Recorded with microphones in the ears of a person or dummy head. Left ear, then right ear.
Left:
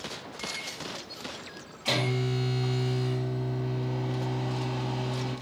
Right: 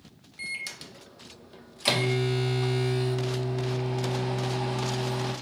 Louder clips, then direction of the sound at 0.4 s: Right 2 dB; 70° right (ahead or behind).